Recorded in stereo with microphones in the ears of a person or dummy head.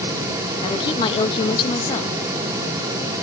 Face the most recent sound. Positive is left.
turn(degrees=25)  # may be behind; listen again after turning